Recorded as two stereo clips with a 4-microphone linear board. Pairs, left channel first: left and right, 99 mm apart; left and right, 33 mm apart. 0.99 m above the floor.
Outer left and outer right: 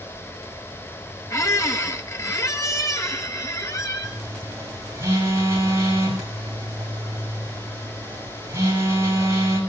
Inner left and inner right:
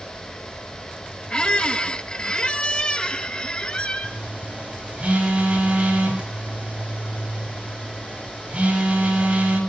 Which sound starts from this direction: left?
A squeak, at 1.3 s.